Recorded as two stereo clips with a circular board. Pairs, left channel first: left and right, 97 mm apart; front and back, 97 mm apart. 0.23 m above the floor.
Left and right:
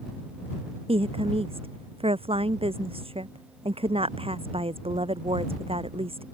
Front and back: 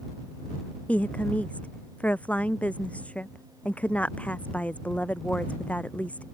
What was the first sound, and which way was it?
A woman speaking, 75° right.